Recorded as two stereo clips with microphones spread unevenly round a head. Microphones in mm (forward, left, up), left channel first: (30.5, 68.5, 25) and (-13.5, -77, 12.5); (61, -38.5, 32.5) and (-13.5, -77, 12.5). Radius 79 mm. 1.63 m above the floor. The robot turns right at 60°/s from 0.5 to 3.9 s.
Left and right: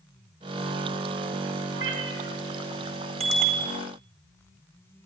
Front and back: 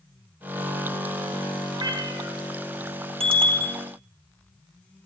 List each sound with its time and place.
1.7 s a cat meowing: 125° right, 4 m; by 2.4 s 85° right, 4 m
3.2 s a bicycle bell: 160° right, 4 m; by 3.8 s 130° right, 4 m